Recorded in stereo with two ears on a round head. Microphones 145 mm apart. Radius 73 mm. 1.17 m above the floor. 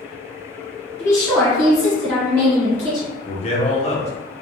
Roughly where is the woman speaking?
Centre.